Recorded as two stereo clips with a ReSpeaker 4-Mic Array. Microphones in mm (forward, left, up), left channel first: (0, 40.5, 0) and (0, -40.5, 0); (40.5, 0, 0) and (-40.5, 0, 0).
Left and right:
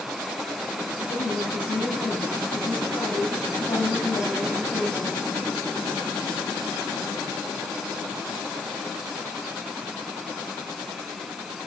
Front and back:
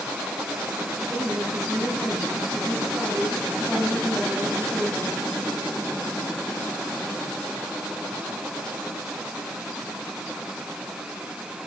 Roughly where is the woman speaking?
Left.